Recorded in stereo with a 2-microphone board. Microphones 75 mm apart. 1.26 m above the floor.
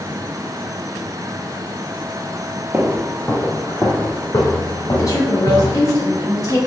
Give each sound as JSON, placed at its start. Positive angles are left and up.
{"t": 2.7, "sound": "footsteps", "side_deg": -20, "distance_m": 1.3}
{"t": 5.0, "sound": "a woman speaking", "side_deg": 45, "distance_m": 2.0}